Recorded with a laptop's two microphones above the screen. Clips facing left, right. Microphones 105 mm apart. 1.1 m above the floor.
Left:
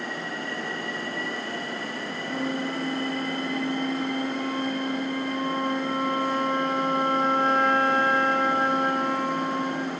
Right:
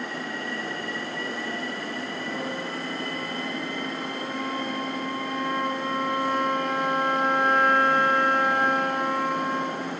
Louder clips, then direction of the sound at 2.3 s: Left 6 dB; 35° left (ahead or behind).